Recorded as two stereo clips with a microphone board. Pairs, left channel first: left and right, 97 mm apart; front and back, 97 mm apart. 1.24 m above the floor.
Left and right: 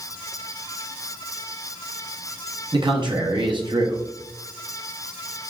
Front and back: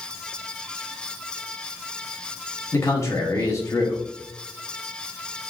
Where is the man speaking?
55° right, 0.8 m.